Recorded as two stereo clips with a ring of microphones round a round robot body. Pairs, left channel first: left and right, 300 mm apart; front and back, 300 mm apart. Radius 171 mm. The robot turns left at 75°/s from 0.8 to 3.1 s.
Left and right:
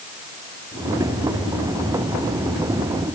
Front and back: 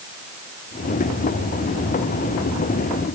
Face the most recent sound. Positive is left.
No sound to turn to.